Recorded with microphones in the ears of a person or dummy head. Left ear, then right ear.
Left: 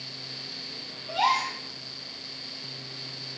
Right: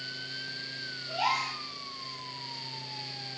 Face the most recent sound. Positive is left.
turn(degrees=25)  # may be behind; listen again after turning